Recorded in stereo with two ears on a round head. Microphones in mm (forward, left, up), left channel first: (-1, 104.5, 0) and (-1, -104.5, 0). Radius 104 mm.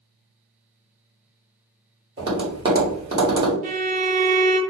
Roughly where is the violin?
Right.